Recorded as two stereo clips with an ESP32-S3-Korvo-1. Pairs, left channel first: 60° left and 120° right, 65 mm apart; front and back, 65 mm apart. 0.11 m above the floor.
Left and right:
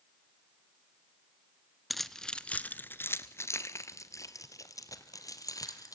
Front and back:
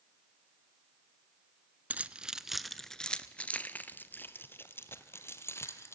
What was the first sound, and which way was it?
Keys jangling, 145° left.